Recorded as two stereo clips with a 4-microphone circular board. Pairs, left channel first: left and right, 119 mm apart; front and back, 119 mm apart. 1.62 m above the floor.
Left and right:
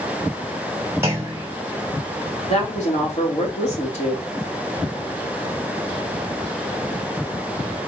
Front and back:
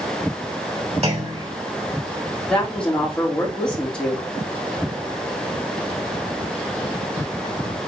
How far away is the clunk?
About 2.5 m.